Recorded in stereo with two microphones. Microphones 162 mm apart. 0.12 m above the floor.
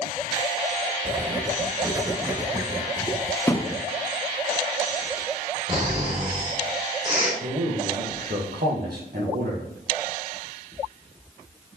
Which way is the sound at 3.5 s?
15° left (ahead or behind).